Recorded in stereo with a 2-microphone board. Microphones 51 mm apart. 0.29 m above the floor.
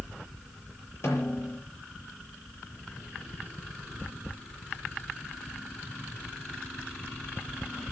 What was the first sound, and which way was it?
A snare drum, 55° left (ahead or behind).